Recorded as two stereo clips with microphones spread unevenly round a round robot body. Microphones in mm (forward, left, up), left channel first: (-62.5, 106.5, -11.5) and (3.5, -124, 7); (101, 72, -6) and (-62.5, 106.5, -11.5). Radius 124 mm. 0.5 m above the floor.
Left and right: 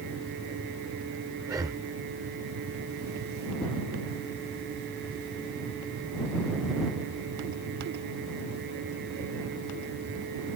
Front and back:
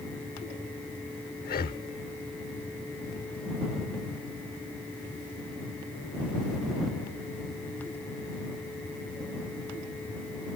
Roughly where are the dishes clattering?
I don't hear dishes clattering.